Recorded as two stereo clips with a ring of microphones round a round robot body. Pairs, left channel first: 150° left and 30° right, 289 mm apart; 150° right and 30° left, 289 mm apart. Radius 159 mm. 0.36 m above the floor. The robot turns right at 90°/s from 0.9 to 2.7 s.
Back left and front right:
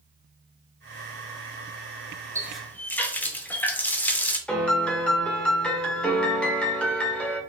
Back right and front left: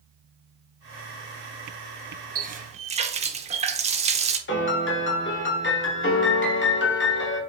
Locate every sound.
2.4 s a running tap: 40° left, 0.6 m; by 4.4 s 70° left, 0.6 m
4.5 s a piano: 125° right, 1.1 m